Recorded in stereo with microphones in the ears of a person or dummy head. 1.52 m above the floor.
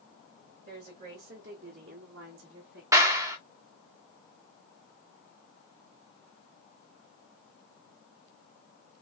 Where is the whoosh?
I don't hear a whoosh.